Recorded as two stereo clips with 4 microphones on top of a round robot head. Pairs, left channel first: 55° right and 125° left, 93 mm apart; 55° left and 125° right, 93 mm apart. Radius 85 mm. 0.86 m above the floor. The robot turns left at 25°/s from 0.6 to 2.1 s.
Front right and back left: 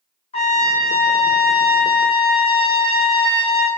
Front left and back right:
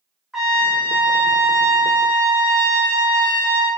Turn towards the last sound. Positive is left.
turn(degrees=-80)